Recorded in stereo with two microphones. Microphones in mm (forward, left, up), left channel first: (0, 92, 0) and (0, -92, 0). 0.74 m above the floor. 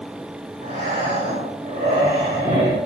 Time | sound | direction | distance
0.6 | breathing | 50° right (ahead or behind) | 2 m